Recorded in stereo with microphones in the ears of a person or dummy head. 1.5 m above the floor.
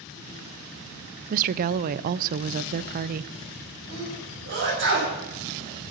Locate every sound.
1.3 s a woman speaking: 50° right (ahead or behind), 0.6 m
3.9 s a sneeze: 60° right (ahead or behind), 9 m